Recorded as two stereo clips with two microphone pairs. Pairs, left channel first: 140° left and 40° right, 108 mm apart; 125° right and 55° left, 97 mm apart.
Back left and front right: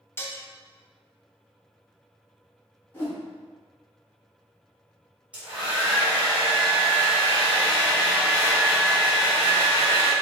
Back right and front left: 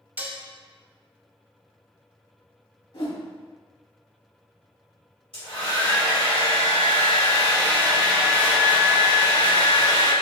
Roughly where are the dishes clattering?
Left.